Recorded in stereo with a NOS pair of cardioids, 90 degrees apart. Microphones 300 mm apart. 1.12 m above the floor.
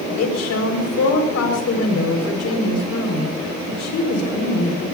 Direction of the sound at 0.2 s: 60° left.